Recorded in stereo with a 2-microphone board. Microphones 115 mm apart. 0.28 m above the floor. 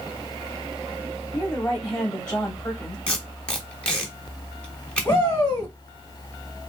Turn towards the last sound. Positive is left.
turn(degrees=20)  # may be behind; listen again after turning